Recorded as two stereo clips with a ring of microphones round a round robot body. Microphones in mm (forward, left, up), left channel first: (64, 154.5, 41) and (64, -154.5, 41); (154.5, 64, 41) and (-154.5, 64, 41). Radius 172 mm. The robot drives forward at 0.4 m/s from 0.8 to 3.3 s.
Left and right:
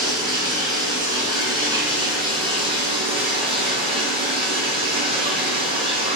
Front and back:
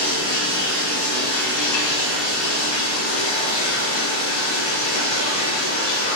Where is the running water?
15° right, 4.5 m.